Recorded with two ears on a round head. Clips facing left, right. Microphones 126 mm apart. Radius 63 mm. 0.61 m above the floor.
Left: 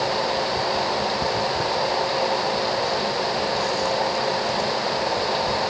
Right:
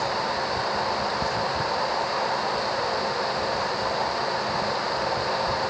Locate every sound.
Only background noise.